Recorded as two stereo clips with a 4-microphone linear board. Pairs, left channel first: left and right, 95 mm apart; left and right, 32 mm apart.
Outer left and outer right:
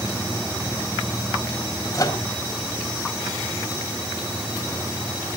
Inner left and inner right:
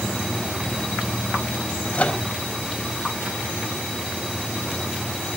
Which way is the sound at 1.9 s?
40° left (ahead or behind).